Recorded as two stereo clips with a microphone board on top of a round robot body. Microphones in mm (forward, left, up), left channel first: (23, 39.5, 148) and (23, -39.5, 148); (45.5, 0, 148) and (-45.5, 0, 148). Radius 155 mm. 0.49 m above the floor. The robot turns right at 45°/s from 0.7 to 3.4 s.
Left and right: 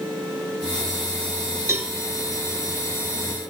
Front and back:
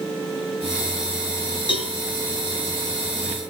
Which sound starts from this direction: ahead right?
A cowbell, at 1.7 s.